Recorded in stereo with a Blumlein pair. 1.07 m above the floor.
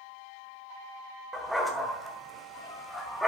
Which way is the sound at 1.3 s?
Straight ahead.